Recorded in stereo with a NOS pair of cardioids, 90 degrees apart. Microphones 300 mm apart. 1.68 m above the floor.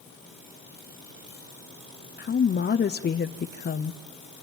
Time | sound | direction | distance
2.2 | a woman speaking | 35° left | 0.9 m